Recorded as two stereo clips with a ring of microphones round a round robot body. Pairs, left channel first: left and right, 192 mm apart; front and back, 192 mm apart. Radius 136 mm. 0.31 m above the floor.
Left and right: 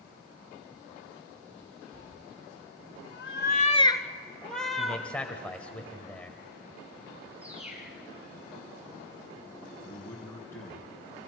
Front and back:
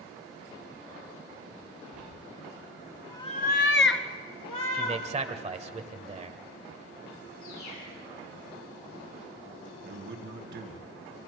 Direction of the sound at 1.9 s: 135° left.